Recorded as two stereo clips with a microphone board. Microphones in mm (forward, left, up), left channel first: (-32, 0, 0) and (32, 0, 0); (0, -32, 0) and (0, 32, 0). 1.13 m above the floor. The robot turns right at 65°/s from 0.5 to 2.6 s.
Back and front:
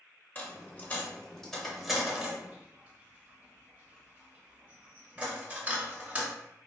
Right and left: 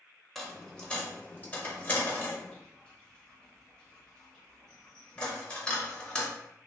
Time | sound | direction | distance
0.3 | a dropped coin | 175° right | 0.9 m